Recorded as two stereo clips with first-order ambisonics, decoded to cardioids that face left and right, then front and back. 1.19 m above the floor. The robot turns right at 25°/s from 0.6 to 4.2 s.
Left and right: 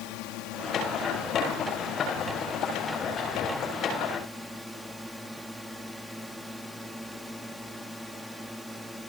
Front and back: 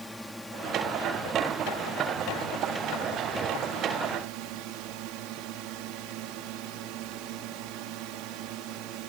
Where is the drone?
90° left; by 9.1 s straight behind.